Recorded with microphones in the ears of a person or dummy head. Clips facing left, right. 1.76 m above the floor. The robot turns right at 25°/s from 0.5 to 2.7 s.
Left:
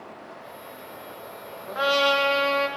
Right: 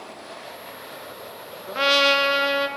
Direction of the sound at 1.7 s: 40° right (ahead or behind).